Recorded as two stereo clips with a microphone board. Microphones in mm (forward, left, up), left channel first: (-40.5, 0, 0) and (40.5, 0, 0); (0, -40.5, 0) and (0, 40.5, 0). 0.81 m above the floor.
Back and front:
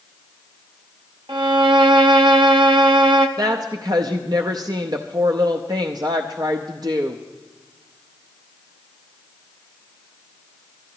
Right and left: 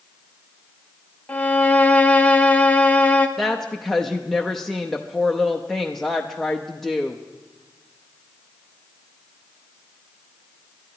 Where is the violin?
20° right, 0.8 m.